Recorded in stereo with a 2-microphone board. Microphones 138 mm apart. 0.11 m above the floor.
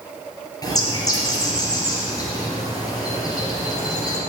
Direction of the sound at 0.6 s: 25° left (ahead or behind).